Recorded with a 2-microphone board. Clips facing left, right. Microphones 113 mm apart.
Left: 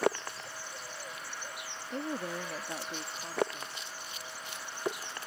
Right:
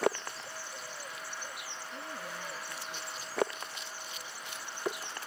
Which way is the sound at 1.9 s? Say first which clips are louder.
Left 9 dB; 60° left (ahead or behind).